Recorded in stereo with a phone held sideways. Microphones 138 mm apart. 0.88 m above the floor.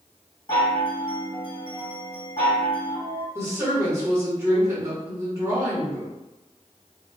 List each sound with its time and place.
0.5 s a chime: 35° left (ahead or behind), 1.4 m
3.4 s a woman speaking: 20° right (ahead or behind), 1.0 m